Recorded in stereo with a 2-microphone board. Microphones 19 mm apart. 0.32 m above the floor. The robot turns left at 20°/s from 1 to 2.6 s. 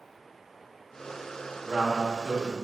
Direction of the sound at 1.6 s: 5° left (ahead or behind).